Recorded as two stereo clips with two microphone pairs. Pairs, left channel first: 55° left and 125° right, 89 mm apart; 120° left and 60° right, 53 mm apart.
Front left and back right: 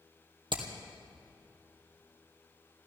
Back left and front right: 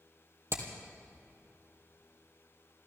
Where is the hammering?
95° right, 2 m.